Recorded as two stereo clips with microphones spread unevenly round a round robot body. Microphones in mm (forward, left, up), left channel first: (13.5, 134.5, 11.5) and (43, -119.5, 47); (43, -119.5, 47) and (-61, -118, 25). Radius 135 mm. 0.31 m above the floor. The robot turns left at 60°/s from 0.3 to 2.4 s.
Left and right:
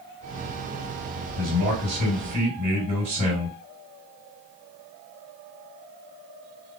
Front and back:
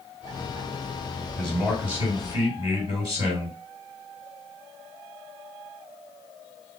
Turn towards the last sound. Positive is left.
turn(degrees=-150)